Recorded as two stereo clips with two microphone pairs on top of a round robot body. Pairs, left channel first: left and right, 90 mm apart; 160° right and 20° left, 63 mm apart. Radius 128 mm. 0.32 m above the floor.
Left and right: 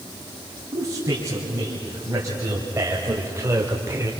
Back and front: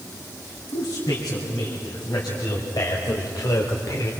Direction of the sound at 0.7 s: 150° right.